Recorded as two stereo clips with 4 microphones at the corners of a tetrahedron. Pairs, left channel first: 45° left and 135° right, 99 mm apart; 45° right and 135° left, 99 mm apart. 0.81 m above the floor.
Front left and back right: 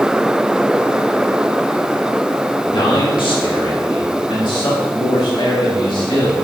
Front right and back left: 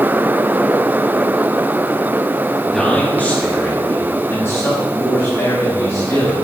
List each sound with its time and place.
2.7 s a man speaking: 40° left, 1.6 m; by 6.3 s 10° left, 5.5 m